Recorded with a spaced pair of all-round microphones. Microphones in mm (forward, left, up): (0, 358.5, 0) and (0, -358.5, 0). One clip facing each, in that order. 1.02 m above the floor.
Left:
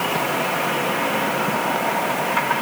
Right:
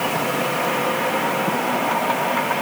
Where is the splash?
No splash in this recording.